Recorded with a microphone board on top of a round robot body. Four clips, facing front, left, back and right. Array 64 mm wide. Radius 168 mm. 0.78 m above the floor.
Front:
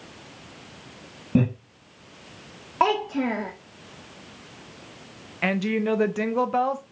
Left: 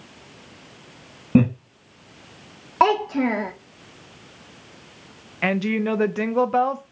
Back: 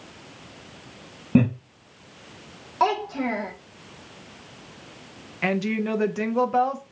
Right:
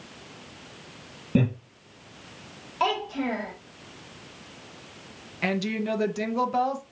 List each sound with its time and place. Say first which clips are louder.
1.4 s laughter: left 7 dB, back 3 dB; 100° left, 1.9 m
2.8 s a child speaking: left 8 dB, front 1 dB; 75° left, 0.5 m
5.4 s a woman speaking: left 5 dB, front 1 dB; 80° left, 0.7 m